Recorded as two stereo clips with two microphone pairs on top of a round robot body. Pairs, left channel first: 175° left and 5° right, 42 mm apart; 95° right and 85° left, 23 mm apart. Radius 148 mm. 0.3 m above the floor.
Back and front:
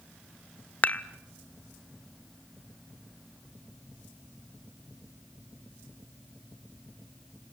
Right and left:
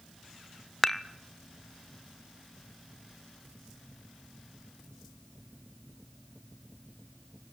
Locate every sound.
0.8 s dishes clattering: 155° right, 1.0 m